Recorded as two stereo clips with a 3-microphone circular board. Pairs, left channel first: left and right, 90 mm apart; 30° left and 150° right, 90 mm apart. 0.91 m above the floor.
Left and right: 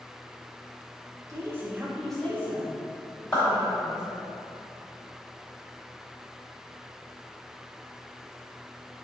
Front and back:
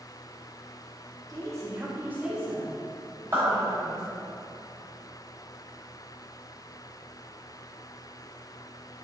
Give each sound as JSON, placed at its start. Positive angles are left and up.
{"t": 1.3, "sound": "a woman speaking", "azimuth_deg": -125, "distance_m": 0.8}
{"t": 3.3, "sound": "a clap", "azimuth_deg": 150, "distance_m": 1.4}